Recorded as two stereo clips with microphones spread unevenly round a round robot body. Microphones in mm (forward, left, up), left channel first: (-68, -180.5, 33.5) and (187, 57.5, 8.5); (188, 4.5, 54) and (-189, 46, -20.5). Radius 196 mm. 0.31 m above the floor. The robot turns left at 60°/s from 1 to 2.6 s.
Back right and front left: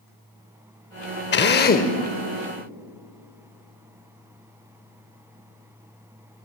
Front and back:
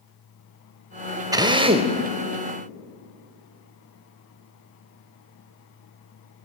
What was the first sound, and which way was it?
A drill, 150° right.